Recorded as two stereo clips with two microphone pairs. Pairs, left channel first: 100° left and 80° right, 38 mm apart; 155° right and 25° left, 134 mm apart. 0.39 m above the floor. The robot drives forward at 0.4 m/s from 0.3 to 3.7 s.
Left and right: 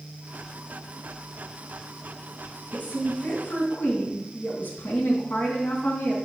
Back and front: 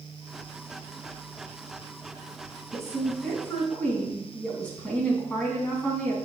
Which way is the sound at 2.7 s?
115° left.